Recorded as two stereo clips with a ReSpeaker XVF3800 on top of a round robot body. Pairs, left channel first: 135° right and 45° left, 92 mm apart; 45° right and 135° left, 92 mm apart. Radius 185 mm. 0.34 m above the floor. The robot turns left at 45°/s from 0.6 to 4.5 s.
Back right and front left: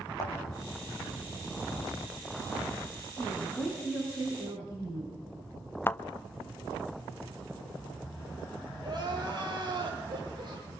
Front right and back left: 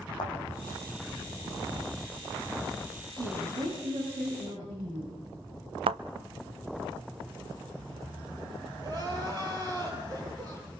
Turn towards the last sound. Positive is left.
turn(degrees=85)